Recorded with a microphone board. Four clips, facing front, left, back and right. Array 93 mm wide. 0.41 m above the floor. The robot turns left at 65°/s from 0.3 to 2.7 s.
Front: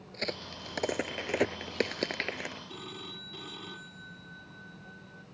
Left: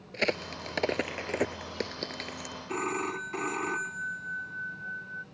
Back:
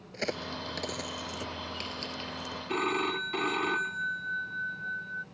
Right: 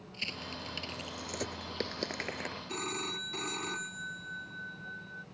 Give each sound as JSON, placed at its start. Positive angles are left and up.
{"t": 0.1, "sound": "a crack", "azimuth_deg": 105}
{"t": 2.7, "sound": "a phone ringing", "azimuth_deg": 150}